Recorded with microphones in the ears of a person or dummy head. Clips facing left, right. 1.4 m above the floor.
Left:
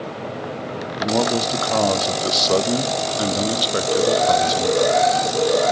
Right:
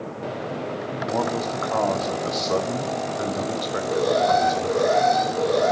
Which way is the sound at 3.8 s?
40° left (ahead or behind).